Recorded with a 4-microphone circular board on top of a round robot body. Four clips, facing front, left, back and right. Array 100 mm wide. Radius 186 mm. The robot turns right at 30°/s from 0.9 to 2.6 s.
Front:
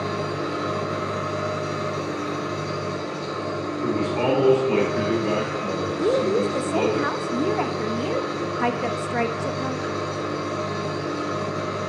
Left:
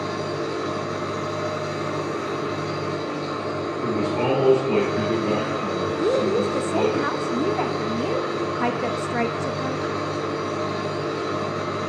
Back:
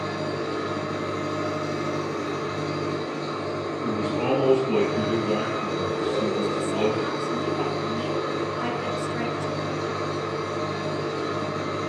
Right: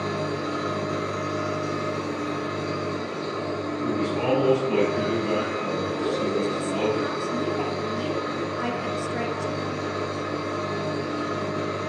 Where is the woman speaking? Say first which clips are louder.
Left 6 dB, front 7 dB; 40° left, 0.8 m.